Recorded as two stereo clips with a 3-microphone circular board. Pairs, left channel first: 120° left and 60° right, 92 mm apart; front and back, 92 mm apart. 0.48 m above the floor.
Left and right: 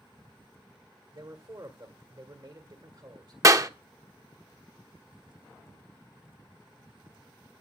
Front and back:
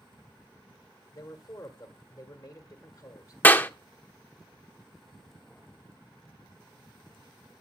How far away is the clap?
About 0.7 m.